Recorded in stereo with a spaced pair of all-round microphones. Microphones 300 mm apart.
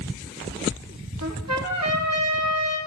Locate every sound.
1.2 s a trumpet: 60° right (ahead or behind), 1.0 m